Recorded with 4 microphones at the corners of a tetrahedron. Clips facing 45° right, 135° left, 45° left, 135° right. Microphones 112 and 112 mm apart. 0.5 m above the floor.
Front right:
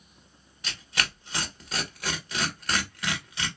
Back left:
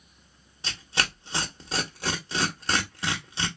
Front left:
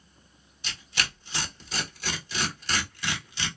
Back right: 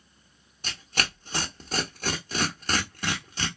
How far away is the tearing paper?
About 0.9 m.